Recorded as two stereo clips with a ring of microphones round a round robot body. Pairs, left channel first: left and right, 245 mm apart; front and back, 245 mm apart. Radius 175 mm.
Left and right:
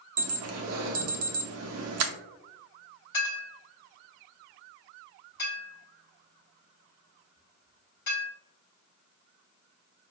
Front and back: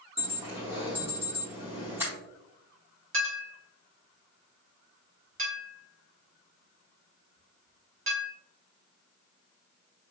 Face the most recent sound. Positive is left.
turn(degrees=145)